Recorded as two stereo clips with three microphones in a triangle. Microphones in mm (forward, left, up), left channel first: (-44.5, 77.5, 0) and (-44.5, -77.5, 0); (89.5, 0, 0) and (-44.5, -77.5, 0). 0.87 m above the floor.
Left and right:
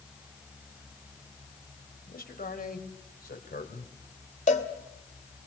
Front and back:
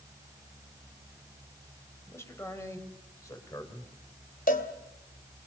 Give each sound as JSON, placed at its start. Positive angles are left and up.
{"t": 2.1, "sound": "a man speaking", "azimuth_deg": 100, "distance_m": 4.0}
{"t": 4.5, "sound": "a cowbell", "azimuth_deg": 55, "distance_m": 2.5}